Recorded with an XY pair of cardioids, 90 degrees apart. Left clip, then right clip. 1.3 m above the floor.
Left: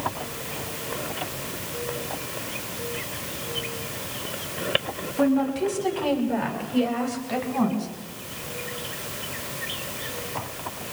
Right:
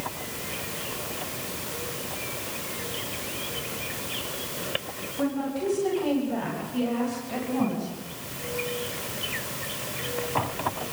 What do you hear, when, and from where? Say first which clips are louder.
5.2 s a woman speaking: left 6 dB; 65° left, 10 m; by 7.9 s 50° left, 7.5 m